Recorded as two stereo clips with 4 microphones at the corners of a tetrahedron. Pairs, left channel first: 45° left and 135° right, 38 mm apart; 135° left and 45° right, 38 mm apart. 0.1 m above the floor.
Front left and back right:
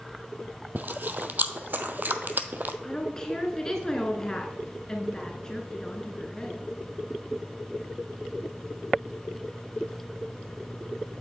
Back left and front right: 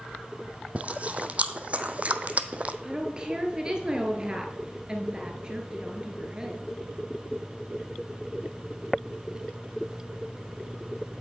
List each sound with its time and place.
0.8 s chewing: 95° right, 0.5 m
2.8 s a woman speaking: 10° right, 1.1 m